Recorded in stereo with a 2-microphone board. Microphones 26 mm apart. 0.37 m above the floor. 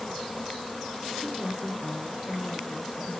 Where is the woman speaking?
20° right (ahead or behind), 5.5 m.